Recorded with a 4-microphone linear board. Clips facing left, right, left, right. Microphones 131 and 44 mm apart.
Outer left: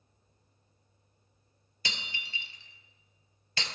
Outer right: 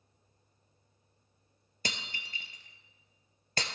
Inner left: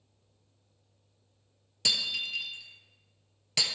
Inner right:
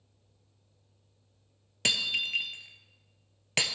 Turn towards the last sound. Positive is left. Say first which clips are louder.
# outer right 1 dB, inner right 2 dB
turn(degrees=-45)  # may be behind; listen again after turning